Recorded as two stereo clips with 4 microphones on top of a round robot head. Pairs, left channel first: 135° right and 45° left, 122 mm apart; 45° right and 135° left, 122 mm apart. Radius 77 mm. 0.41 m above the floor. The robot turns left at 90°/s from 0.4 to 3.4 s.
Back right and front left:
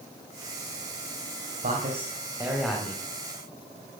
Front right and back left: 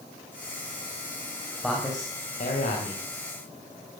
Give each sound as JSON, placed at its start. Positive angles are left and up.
{"t": 1.6, "sound": "a man speaking", "azimuth_deg": 50, "distance_m": 3.0}